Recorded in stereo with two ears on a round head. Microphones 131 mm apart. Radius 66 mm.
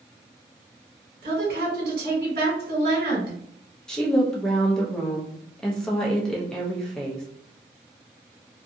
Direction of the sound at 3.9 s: 5° left (ahead or behind).